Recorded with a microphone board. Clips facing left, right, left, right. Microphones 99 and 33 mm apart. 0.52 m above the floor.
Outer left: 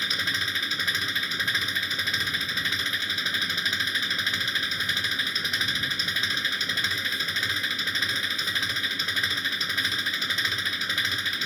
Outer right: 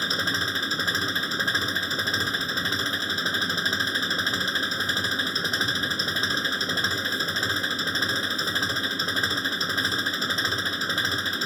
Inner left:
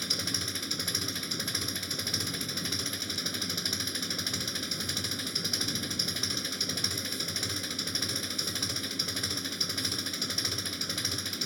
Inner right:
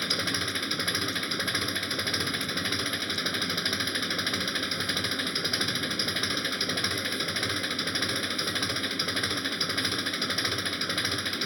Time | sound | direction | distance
0.0 | an engine running | 35° right (ahead or behind) | ?